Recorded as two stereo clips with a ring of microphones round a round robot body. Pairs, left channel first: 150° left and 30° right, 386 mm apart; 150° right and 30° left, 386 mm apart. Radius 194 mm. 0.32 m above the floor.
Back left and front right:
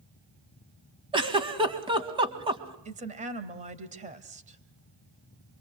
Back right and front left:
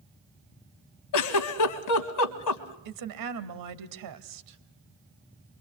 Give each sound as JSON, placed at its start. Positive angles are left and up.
{"t": 1.1, "sound": "a giggle", "azimuth_deg": -105, "distance_m": 1.8}
{"t": 2.9, "sound": "a woman speaking", "azimuth_deg": 35, "distance_m": 1.9}